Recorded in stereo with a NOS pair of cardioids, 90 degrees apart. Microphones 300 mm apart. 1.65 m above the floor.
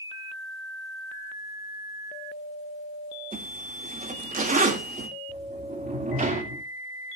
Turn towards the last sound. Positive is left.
turn(degrees=-25)